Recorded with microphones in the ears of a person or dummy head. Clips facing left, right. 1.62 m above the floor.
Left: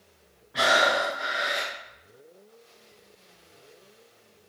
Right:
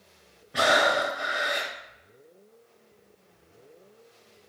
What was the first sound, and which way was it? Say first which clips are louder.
Breathing: right 1 dB; 30° right (ahead or behind).